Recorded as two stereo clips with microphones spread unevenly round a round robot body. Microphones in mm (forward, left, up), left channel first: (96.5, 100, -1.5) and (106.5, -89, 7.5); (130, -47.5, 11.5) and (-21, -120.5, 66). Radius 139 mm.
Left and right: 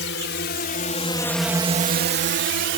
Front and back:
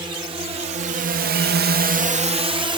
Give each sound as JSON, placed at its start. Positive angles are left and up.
{"t": 0.0, "sound": "a drone", "azimuth_deg": 130}